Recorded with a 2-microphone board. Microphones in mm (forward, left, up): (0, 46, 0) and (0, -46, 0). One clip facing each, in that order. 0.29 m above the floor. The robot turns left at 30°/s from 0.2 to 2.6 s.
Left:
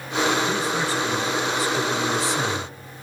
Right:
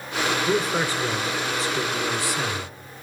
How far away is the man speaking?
About 2.5 m.